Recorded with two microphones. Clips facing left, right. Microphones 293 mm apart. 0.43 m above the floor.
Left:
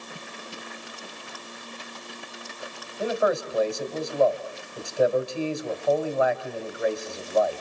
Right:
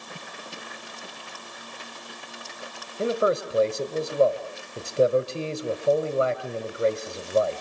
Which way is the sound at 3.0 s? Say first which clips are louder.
Right 1 dB; 35° right (ahead or behind).